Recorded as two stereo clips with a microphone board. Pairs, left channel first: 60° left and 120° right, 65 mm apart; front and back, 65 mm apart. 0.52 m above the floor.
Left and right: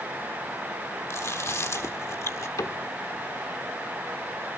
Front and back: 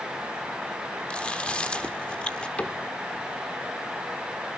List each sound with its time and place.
1.1 s chewing: 65° left, 1.5 m
2.6 s a cupboard door: 65° left, 0.8 m